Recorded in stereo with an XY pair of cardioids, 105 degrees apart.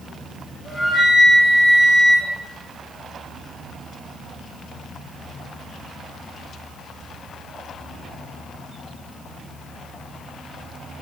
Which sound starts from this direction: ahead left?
A flute, at 0.7 s.